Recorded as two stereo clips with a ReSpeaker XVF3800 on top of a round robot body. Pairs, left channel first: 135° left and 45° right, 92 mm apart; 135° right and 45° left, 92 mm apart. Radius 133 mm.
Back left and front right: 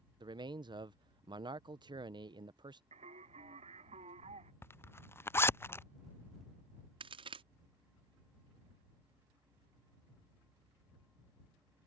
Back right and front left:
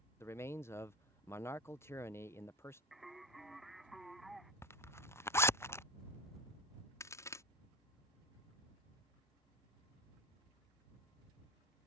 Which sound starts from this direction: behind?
A zipper, at 4.6 s.